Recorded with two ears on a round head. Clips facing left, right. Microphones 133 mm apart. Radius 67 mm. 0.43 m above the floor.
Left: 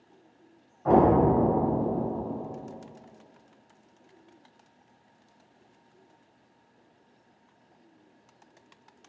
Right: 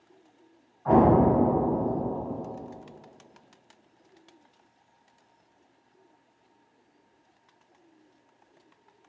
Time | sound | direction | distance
0.8 | an explosion | 45° left (ahead or behind) | 0.7 m